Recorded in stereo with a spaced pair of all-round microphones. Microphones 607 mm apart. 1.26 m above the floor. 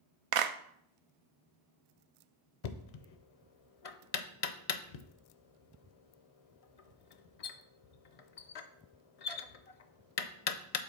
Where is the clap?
65° right (ahead or behind), 0.5 m.